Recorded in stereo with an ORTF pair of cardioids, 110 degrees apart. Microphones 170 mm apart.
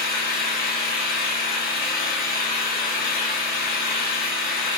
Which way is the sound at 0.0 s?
60° left.